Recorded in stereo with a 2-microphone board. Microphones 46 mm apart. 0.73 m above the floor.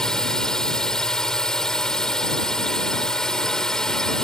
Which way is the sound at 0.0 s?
10° left (ahead or behind).